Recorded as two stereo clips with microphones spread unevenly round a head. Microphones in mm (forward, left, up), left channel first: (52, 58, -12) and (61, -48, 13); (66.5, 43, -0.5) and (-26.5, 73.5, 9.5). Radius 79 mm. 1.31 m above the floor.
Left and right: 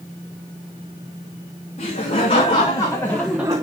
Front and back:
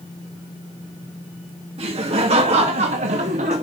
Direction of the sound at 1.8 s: 145° left.